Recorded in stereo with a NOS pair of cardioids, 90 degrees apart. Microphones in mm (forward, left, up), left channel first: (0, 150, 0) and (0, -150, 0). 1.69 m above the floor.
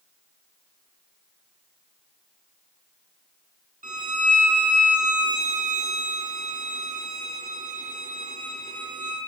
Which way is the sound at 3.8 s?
25° right.